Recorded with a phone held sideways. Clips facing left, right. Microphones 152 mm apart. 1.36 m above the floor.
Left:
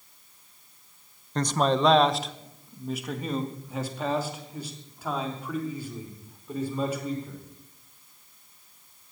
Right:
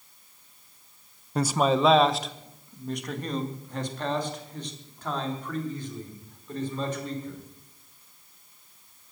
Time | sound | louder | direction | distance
1.4 | a man speaking | right 1 dB | 10° right (ahead or behind) | 0.7 m